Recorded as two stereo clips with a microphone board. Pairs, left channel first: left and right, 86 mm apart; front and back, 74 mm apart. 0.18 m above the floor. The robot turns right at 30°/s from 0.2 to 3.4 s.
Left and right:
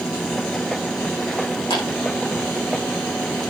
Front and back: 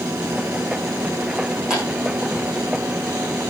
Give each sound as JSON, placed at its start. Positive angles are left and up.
{"t": 1.7, "sound": "a clap", "azimuth_deg": 100, "distance_m": 9.5}